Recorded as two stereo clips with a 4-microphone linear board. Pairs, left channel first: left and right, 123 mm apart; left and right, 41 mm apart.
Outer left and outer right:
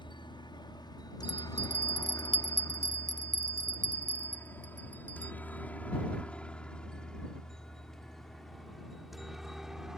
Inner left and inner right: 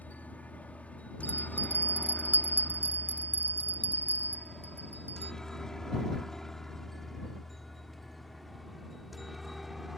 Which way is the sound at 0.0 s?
35° left (ahead or behind).